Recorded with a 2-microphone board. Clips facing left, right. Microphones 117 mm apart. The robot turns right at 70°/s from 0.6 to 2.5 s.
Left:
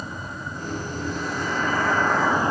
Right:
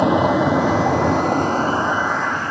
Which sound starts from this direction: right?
A vehicle, at 0.0 s.